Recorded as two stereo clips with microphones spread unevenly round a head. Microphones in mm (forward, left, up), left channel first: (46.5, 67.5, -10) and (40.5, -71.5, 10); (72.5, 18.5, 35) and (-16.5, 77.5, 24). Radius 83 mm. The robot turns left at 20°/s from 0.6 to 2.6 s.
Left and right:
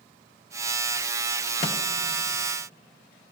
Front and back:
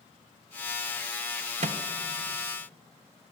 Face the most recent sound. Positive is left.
turn(degrees=120)